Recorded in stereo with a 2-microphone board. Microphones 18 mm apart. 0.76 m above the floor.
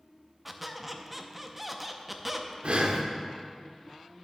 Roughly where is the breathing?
Right.